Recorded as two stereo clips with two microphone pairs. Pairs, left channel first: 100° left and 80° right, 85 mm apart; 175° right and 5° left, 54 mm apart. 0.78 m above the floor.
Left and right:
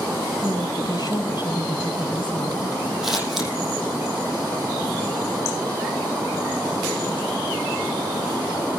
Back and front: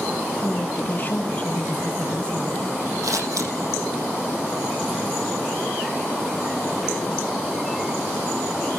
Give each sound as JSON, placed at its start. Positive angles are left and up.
{"t": 0.4, "sound": "a woman speaking", "azimuth_deg": 135, "distance_m": 4.5}
{"t": 3.0, "sound": "scissors", "azimuth_deg": 5, "distance_m": 6.5}